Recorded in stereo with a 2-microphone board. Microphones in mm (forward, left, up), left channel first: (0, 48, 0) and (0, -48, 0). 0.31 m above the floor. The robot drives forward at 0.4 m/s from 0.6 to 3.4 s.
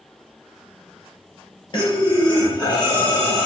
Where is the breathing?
50° left (ahead or behind), 3 m; by 3.5 s 40° left (ahead or behind), 3.5 m.